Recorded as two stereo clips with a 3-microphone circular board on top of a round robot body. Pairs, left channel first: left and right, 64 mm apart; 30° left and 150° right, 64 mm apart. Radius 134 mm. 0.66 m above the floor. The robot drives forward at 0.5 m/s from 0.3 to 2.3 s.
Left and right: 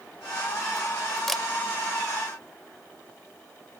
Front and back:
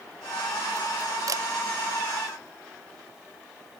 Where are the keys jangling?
I don't hear keys jangling.